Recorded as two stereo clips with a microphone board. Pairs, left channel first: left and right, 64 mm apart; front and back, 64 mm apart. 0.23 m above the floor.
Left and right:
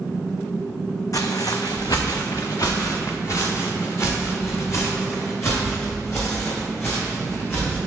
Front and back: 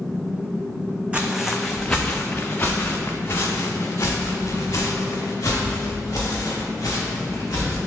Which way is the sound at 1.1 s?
110° left.